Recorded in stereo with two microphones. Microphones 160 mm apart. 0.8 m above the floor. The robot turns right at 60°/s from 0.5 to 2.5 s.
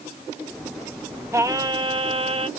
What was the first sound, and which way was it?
Singing, 150° right.